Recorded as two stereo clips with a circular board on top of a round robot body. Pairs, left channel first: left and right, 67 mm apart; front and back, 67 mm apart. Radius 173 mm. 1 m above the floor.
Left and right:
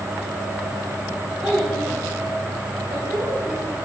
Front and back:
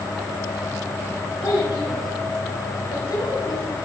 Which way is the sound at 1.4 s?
Straight ahead.